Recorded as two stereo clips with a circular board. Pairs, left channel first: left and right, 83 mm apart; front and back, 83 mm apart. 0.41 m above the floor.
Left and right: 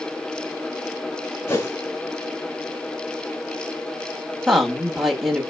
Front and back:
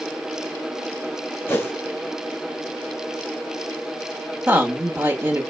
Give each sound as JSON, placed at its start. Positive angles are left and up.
{"t": 1.5, "sound": "a whoosh", "azimuth_deg": 55, "distance_m": 1.5}
{"t": 4.5, "sound": "a woman speaking", "azimuth_deg": -175, "distance_m": 1.0}